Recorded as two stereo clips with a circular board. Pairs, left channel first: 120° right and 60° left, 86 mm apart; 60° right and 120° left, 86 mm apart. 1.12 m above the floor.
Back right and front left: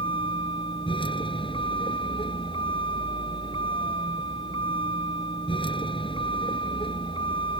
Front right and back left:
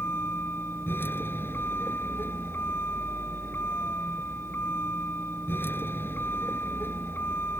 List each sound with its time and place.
0.0 s a vehicle: 125° right